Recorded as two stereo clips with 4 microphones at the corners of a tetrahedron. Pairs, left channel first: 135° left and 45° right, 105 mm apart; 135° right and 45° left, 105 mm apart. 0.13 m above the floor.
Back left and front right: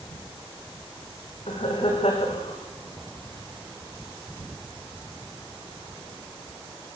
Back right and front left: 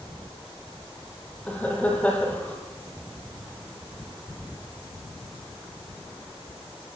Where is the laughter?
150° left, 6 m.